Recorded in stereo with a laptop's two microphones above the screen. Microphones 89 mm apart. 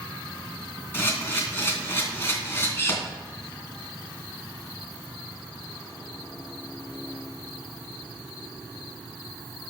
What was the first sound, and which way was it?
A camera shutter, 25° left (ahead or behind).